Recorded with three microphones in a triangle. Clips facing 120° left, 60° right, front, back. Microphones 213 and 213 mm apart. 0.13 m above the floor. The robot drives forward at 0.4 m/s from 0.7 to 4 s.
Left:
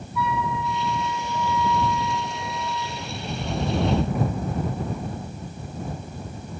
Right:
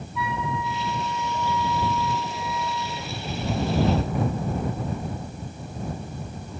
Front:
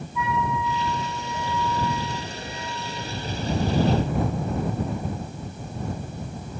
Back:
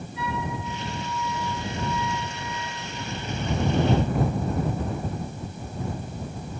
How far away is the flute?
About 1.9 m.